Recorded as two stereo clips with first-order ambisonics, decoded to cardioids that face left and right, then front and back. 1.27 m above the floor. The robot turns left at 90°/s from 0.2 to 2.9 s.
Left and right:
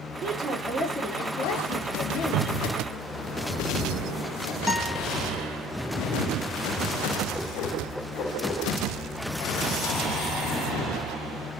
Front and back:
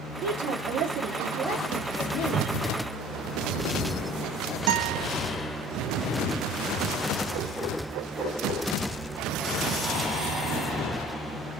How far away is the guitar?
About 1.0 m.